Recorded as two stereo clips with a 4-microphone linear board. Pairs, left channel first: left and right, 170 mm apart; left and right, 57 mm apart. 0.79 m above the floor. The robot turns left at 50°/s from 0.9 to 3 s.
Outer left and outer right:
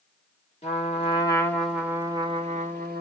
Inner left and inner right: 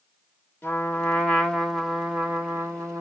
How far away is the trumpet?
About 1.0 m.